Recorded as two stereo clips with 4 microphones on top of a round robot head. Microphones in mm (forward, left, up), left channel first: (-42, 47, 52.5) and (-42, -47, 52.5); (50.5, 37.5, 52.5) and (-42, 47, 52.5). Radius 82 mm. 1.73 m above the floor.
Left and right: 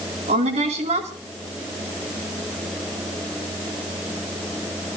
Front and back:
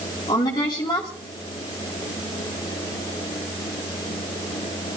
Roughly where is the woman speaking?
Ahead right.